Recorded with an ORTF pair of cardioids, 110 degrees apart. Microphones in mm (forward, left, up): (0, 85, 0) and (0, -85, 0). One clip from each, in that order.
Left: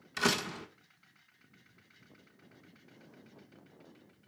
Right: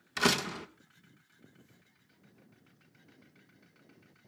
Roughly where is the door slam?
Ahead.